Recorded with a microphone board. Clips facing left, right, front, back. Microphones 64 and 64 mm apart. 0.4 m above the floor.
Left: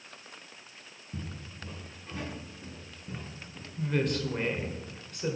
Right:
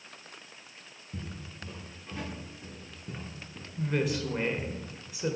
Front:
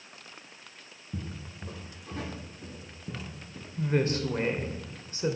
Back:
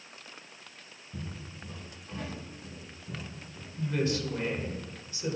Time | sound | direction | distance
1.1 | footsteps | 5° left | 3 m
3.8 | a woman speaking | 10° right | 1.0 m